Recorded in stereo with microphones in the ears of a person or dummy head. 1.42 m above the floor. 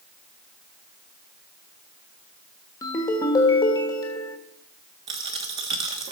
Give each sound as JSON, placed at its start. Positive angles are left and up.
{"t": 2.8, "sound": "a ringtone", "side_deg": 15, "distance_m": 1.3}
{"t": 5.1, "sound": "a dropped coin", "side_deg": -30, "distance_m": 1.3}